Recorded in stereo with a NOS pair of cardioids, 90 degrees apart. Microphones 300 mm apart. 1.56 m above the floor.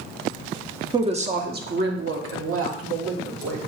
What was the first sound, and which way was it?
A woman speaking, 15° right.